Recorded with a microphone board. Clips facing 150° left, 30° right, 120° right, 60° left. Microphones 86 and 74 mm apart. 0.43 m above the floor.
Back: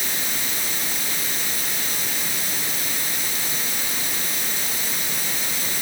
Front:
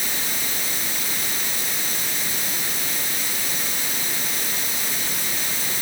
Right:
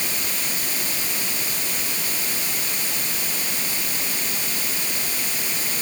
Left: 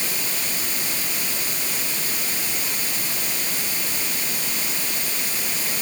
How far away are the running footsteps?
No running footsteps in this recording.